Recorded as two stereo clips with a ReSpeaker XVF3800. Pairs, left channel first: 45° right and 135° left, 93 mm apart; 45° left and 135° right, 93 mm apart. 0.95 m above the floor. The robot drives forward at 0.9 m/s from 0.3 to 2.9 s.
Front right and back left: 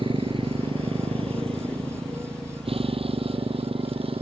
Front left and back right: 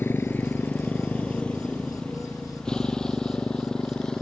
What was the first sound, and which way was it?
A motorcycle, 115° left.